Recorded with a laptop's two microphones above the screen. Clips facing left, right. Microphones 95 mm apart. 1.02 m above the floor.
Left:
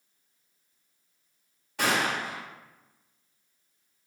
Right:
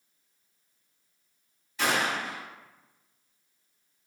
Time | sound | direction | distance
1.8 | a gunshot | 60° left (ahead or behind) | 2.0 m